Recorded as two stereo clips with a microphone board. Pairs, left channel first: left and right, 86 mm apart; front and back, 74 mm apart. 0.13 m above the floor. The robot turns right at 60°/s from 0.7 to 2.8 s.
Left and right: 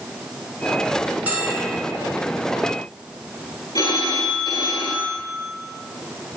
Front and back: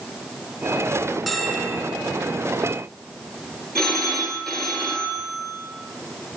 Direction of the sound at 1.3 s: 95° right.